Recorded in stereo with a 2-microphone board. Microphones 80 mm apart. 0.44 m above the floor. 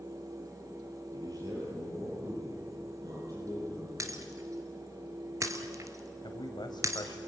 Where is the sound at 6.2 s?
65° left (ahead or behind), 2 m.